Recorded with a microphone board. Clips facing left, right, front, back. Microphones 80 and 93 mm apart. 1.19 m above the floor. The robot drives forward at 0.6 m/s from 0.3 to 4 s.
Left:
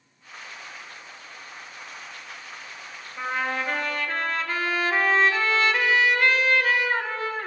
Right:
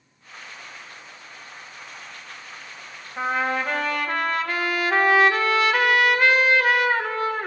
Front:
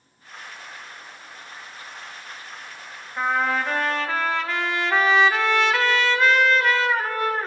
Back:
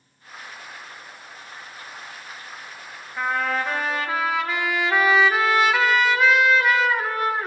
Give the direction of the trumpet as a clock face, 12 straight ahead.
3 o'clock.